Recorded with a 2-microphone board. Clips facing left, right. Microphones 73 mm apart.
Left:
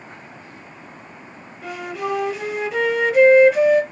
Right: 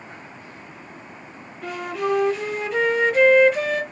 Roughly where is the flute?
Centre.